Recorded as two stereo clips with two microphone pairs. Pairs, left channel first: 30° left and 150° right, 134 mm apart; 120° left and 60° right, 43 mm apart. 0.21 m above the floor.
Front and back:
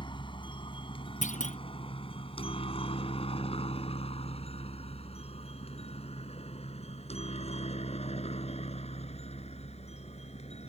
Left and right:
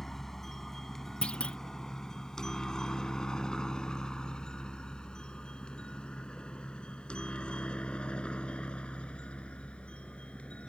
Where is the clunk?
55° left.